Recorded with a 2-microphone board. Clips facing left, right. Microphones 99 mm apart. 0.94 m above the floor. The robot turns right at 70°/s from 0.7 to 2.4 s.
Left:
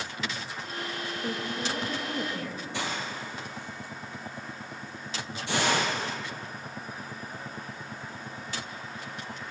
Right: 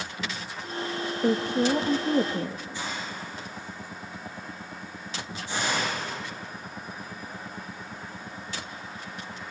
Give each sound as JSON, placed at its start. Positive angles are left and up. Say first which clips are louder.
{"t": 1.2, "sound": "a woman speaking", "louder": "right 11 dB", "azimuth_deg": -120, "distance_m": 1.0}
{"t": 2.7, "sound": "a hiss", "louder": "left 1 dB", "side_deg": 75, "distance_m": 5.0}